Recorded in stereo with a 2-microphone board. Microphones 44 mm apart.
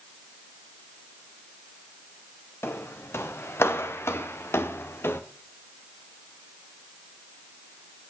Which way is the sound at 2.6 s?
70° left (ahead or behind).